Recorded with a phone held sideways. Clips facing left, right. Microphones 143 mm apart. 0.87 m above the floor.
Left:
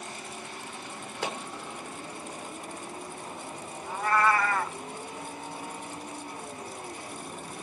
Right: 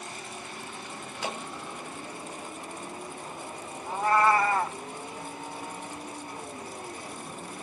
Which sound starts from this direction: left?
A clap, at 1.2 s.